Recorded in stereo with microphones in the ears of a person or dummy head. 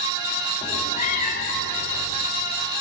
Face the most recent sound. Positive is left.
turn(degrees=60)  # may be behind; listen again after turning